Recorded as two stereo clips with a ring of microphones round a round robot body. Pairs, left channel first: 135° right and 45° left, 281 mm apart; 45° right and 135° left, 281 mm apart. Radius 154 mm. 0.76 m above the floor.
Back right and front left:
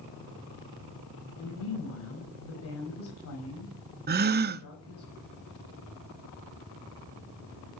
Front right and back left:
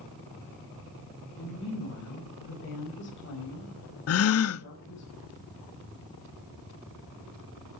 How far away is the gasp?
About 0.6 m.